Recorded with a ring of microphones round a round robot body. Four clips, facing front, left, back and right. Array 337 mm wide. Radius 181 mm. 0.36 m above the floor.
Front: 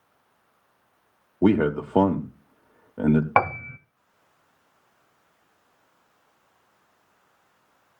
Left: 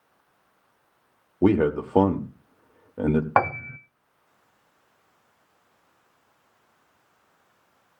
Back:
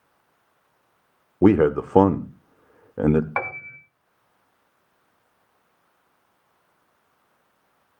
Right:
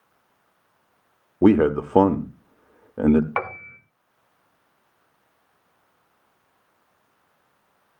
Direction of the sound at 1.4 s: 150° right.